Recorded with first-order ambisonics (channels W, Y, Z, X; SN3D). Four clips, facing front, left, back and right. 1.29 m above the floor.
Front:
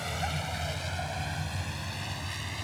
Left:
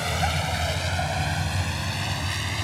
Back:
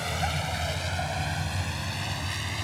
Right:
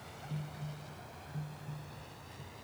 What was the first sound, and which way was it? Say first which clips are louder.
A vehicle: left 20 dB, back 4 dB; 105° left.